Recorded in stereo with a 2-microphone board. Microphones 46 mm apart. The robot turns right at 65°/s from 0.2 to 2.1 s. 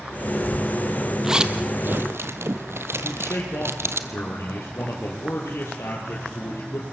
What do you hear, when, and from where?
1.2 s a zipper: 5° right (ahead or behind), 1.3 m; by 4.0 s 65° right (ahead or behind), 1.3 m
3.0 s a man speaking: 70° left (ahead or behind), 4.5 m